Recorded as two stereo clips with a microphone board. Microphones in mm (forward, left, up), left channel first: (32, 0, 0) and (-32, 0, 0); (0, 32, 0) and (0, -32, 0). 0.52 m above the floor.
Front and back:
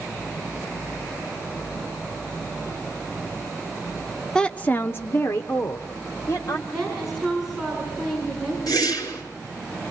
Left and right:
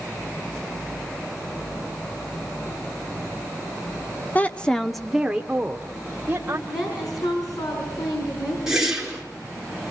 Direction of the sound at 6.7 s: 95° left.